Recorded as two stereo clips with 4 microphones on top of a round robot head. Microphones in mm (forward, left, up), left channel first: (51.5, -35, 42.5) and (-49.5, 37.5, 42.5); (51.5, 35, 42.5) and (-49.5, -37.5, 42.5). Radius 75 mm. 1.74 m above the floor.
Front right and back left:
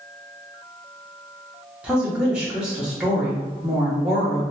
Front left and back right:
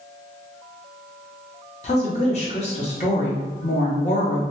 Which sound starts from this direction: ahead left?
A woman speaking, at 1.8 s.